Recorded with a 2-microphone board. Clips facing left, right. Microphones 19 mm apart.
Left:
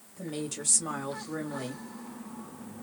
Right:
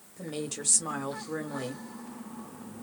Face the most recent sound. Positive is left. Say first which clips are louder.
# even
turn(degrees=-5)  # may be behind; listen again after turning